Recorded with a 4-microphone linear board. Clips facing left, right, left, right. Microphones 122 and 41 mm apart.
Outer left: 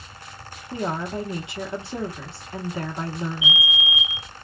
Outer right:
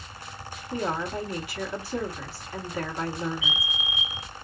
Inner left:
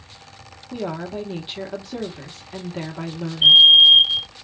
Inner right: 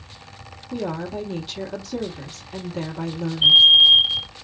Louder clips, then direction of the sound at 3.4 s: Outer left 5 dB, inner left 2 dB; 10° left (ahead or behind).